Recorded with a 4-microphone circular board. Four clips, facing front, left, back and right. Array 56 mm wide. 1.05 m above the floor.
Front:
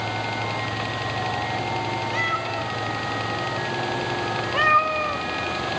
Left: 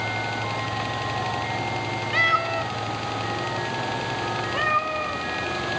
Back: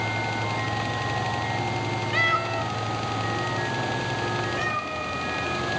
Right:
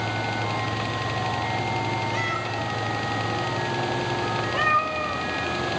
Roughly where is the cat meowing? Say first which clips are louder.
Left 5 dB, back 5 dB; behind left.